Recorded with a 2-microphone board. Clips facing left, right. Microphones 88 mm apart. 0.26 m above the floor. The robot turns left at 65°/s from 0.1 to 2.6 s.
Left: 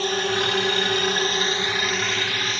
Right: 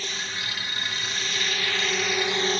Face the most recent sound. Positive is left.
turn(degrees=-40)  # may be behind; listen again after turning